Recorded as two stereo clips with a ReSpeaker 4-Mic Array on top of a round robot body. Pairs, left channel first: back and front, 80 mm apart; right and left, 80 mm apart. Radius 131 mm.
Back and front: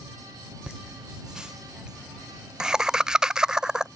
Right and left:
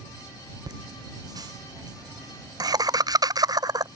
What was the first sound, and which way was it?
Laughter, 80° left.